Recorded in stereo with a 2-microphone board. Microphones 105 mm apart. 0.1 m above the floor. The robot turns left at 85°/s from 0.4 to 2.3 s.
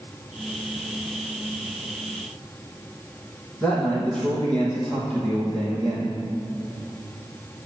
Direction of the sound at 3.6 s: 10° left (ahead or behind).